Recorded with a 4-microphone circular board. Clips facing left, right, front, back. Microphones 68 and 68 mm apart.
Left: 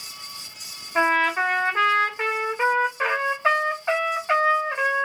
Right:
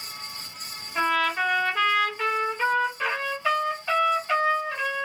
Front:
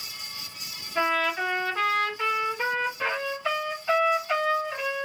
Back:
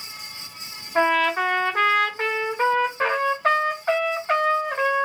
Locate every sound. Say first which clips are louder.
0.9 s a trumpet: left 4 dB, back 5 dB; 145° left, 1.0 m